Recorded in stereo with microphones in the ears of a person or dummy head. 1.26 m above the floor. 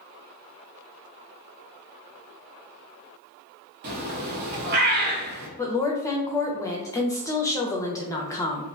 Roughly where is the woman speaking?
Centre.